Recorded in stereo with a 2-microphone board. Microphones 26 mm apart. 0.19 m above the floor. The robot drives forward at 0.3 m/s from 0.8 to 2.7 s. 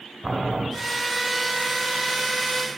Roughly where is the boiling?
Right.